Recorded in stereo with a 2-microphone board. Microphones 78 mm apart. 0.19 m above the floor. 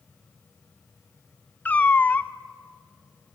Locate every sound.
1.6 s a cat meowing: 20° left (ahead or behind), 0.6 m